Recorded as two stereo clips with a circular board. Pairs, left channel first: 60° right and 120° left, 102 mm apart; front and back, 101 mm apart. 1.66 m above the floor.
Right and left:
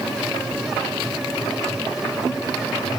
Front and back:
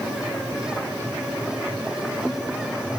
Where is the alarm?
No alarm in this recording.